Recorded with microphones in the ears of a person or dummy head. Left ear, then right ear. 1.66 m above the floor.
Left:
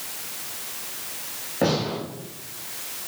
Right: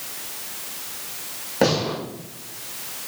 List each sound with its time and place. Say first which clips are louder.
1.6 s a gunshot: right 3 dB; 80° right, 3.5 m